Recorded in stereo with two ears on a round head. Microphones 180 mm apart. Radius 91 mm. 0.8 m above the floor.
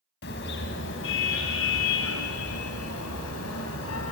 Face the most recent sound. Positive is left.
turn(degrees=70)  # may be behind; listen again after turning